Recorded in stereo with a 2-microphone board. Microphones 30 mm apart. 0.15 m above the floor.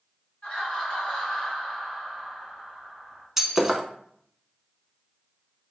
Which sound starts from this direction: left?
Laughter, at 0.4 s.